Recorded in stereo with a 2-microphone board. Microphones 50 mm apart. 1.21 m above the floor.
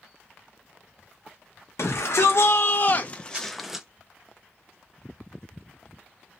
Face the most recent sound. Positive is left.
turn(degrees=-15)  # may be behind; listen again after turning